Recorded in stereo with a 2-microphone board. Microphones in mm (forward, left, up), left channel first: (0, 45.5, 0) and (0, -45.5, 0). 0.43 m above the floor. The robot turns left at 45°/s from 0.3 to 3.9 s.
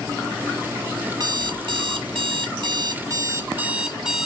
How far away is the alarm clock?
About 1.1 m.